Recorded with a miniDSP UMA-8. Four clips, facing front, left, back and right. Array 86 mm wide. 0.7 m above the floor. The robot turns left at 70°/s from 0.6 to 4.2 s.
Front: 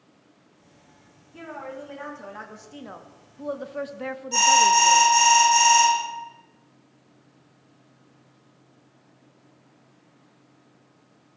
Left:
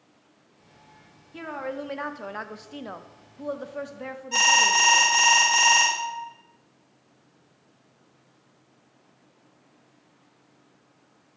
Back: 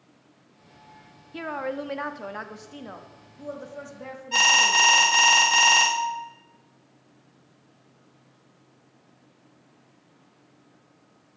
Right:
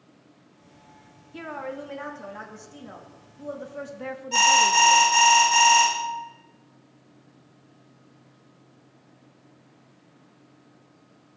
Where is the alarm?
Straight behind, 1.8 m.